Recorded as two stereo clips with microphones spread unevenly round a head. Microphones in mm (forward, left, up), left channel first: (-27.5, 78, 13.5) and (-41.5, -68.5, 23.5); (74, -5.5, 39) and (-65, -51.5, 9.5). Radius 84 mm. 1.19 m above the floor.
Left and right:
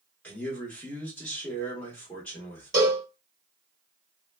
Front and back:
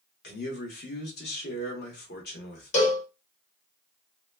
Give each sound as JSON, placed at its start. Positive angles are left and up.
{"t": 0.2, "sound": "a man speaking", "azimuth_deg": 5, "distance_m": 1.2}
{"t": 2.7, "sound": "a cowbell", "azimuth_deg": -25, "distance_m": 1.2}